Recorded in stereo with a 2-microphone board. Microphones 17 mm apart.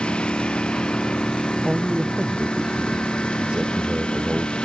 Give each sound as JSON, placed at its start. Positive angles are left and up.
{"t": 0.0, "sound": "a lawn mower", "side_deg": 90}
{"t": 1.6, "sound": "a man speaking", "side_deg": -60}